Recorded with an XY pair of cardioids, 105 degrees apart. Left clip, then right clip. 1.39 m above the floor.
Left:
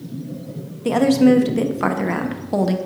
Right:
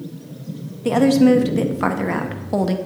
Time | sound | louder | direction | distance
0.8 | a woman speaking | even | straight ahead | 0.8 m